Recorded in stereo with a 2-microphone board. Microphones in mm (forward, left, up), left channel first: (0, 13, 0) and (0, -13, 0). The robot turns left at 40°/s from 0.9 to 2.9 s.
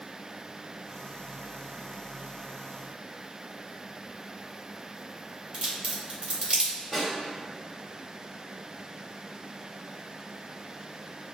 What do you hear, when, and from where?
5.5 s a crack: 50° right (ahead or behind), 1.3 m
6.9 s a snare drum: 10° left (ahead or behind), 1.6 m